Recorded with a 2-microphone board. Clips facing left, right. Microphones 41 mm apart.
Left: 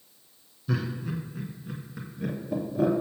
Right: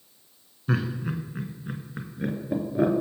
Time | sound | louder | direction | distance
0.7 | laughter | right 3 dB | 40° right (ahead or behind) | 1.4 m